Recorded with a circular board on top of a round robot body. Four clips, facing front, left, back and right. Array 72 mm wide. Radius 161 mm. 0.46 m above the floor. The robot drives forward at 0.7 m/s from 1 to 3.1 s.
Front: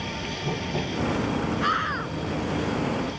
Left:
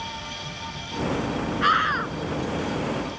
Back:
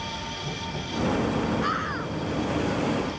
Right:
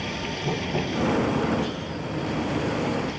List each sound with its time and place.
0.0 s running water: 65° right; by 3.2 s 85° right
1.6 s a scream: 80° left